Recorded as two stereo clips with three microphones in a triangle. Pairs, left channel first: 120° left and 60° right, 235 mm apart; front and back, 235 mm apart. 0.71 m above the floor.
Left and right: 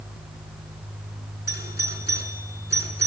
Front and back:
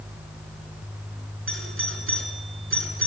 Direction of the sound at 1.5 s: 160° left.